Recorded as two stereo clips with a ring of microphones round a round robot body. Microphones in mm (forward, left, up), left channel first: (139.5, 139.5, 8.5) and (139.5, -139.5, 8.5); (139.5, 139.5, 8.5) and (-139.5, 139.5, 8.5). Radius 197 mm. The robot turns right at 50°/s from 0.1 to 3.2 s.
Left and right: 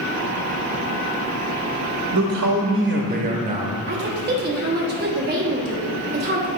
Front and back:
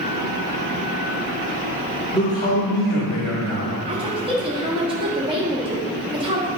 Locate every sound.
2.1 s a man speaking: 85° right, 0.8 m; by 3.8 s 30° right, 0.8 m
3.9 s a woman speaking: 115° right, 1.0 m